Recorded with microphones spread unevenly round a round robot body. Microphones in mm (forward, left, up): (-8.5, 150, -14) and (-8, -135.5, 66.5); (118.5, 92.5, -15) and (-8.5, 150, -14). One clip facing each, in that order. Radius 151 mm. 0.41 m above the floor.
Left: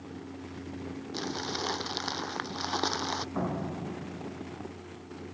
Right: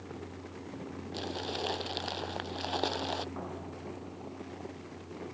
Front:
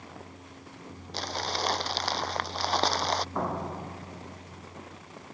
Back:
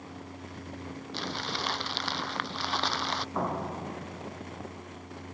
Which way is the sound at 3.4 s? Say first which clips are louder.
Left 8 dB, even; 70° left.